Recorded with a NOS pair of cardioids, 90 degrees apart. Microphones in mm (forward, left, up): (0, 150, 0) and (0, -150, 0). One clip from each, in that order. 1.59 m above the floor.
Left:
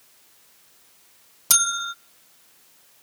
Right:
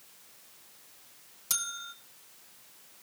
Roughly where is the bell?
Ahead left.